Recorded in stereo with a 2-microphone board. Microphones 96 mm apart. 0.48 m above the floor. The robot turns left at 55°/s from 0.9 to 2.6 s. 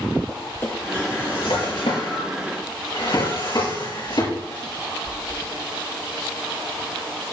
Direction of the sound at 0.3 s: 25° left (ahead or behind).